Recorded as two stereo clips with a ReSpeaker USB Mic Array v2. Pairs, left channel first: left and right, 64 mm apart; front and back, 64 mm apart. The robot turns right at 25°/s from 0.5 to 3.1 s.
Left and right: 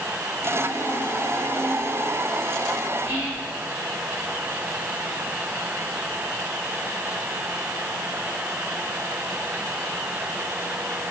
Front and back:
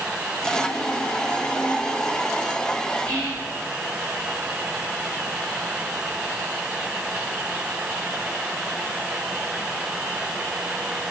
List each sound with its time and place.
3.0 s whispering: 45° right, 1.6 m